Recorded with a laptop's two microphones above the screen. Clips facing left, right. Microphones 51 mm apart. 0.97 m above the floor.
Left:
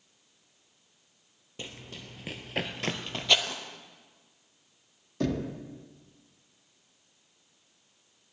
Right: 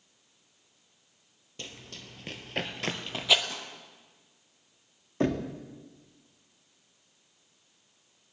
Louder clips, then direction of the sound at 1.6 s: Left 2 dB; 10° left (ahead or behind).